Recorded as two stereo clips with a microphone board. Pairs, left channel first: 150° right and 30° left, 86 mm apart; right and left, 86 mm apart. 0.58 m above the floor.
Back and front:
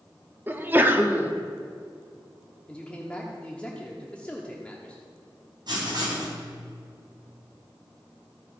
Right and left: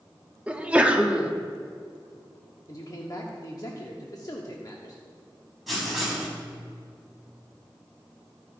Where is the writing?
Straight ahead, 3.5 m.